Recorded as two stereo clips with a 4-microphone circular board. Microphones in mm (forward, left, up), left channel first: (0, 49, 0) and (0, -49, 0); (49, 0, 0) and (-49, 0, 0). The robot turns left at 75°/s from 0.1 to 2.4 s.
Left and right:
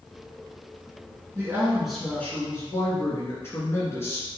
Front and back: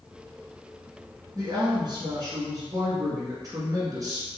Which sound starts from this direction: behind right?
A woman speaking, at 1.4 s.